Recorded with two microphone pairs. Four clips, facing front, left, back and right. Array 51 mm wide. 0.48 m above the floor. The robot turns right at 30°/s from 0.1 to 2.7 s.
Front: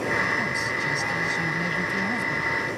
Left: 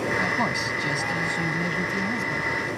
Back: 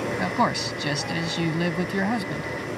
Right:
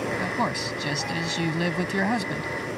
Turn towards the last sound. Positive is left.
turn(degrees=-110)